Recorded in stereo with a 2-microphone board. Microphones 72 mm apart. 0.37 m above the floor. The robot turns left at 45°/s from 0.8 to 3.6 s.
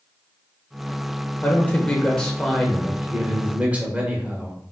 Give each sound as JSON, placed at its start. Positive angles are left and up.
{"t": 1.4, "sound": "a man speaking", "side_deg": 25, "distance_m": 0.9}